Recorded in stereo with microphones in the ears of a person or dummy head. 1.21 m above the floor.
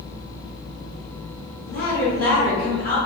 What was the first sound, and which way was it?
A woman speaking, 70° left (ahead or behind).